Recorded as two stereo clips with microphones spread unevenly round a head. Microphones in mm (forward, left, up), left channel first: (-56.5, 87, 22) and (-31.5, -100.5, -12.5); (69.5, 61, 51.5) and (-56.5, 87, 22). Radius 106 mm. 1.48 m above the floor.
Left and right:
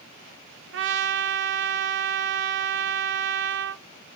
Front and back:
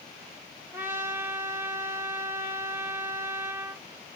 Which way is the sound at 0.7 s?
105° right.